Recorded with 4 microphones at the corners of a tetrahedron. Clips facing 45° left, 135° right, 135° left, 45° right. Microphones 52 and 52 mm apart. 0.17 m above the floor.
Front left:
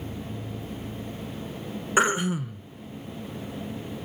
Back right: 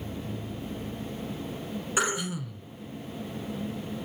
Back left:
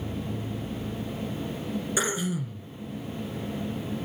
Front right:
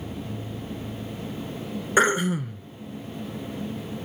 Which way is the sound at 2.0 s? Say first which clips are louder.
Front left 7 dB, front right 11 dB; 10° right.